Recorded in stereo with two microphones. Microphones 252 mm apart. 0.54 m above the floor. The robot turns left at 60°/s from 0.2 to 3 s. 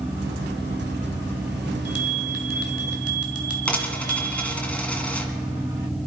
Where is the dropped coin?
5° left (ahead or behind), 1.8 m.